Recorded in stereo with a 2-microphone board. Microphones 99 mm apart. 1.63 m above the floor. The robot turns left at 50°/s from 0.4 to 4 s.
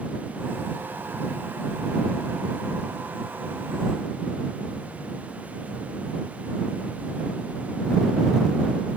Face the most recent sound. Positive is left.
No sound to turn to.